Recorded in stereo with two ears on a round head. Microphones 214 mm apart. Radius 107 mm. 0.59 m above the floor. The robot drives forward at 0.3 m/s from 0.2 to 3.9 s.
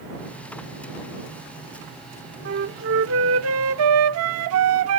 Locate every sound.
2.5 s a flute: 50° right (ahead or behind), 0.8 m; by 5.0 s 65° right (ahead or behind), 0.6 m